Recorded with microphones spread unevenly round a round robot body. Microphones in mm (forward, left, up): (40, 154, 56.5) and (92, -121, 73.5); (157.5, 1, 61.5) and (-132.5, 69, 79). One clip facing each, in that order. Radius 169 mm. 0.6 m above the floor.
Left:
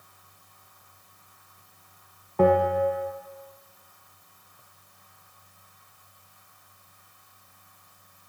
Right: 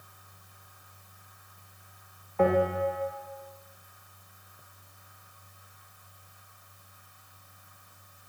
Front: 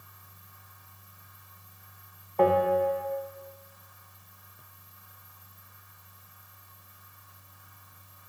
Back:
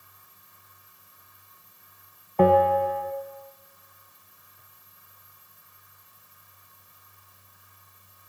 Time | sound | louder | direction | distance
2.4 | a bell | left 4 dB, back 3 dB | 155° left | 1.7 m